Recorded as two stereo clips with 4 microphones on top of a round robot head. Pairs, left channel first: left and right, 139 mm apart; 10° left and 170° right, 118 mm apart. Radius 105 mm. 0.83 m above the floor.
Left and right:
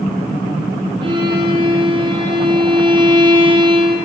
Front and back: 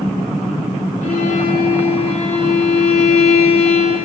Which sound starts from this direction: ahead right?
A violin, at 1.0 s.